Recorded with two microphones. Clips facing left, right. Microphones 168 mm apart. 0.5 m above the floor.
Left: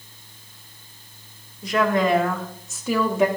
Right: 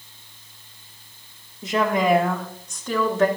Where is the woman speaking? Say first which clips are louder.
Even; 25° right (ahead or behind), 1.2 m; by 3.3 s 15° left (ahead or behind), 1.3 m.